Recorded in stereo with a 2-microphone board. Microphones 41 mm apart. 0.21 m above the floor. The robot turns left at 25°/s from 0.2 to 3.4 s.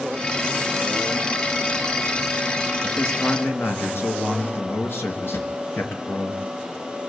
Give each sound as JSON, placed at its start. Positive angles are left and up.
{"t": 2.8, "sound": "a man speaking", "side_deg": 55, "distance_m": 3.5}
{"t": 5.3, "sound": "a drawer", "side_deg": 70, "distance_m": 1.9}